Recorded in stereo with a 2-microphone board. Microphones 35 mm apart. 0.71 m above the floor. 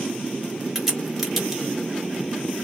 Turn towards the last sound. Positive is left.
turn(degrees=0)  # may be behind; listen again after turning